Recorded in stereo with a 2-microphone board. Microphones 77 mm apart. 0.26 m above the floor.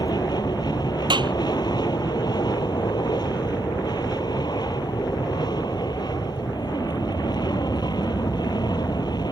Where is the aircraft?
60° left (ahead or behind).